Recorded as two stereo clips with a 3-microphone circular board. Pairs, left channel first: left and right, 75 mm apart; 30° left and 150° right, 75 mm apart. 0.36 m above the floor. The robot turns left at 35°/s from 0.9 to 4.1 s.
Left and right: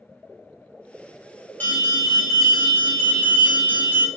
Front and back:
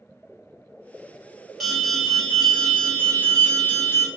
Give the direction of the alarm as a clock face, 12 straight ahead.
8 o'clock.